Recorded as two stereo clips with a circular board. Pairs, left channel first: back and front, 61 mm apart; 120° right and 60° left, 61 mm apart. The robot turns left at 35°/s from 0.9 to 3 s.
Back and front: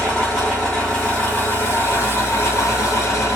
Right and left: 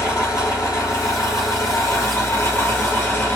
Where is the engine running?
105° right, 1.8 m; by 3.4 s straight behind, 1.8 m.